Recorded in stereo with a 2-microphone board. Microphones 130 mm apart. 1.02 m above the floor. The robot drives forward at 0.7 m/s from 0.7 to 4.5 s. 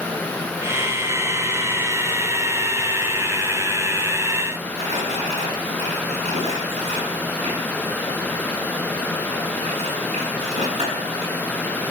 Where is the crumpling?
55° right (ahead or behind), 7.5 m.